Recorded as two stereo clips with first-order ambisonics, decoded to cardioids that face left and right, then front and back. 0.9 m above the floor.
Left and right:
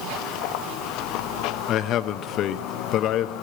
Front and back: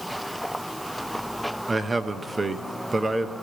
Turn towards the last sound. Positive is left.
turn(degrees=105)